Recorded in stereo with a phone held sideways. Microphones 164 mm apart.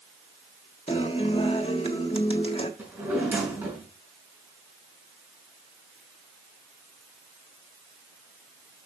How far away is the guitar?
About 1.6 m.